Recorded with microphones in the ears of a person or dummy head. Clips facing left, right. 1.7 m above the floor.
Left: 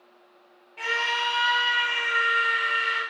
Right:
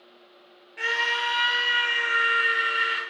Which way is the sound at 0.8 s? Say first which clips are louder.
Even; 10° right (ahead or behind).